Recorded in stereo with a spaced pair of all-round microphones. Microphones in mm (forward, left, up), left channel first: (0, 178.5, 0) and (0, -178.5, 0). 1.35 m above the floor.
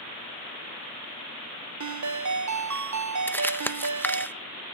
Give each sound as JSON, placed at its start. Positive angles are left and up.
{"t": 1.8, "sound": "a ringtone", "side_deg": -55, "distance_m": 0.6}
{"t": 3.3, "sound": "crumpling", "side_deg": 5, "distance_m": 0.5}